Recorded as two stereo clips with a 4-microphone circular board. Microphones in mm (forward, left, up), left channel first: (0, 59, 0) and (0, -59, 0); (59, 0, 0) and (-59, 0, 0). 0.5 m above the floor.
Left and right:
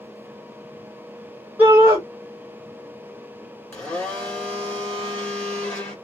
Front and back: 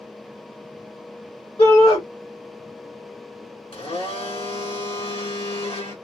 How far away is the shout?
About 1.9 m.